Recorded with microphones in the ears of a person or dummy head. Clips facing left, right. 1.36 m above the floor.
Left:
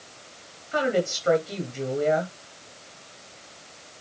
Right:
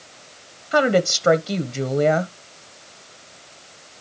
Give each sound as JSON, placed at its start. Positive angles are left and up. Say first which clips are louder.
{"t": 0.7, "sound": "a woman speaking", "louder": "right 6 dB", "side_deg": -65, "distance_m": 1.1}